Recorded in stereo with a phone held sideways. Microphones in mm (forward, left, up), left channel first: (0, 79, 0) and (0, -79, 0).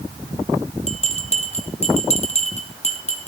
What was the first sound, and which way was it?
A bell, 45° left (ahead or behind).